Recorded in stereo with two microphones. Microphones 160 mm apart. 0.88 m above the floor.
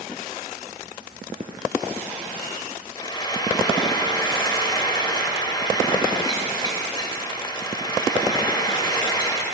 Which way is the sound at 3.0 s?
25° left (ahead or behind).